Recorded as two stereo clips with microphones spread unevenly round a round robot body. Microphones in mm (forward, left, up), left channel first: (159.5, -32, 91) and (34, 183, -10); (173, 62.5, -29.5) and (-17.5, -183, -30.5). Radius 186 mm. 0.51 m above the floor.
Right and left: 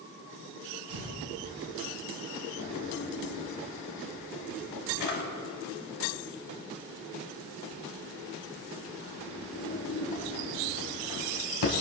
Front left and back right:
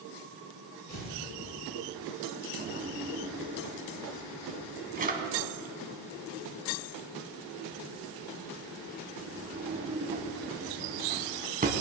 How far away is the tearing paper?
About 5 m.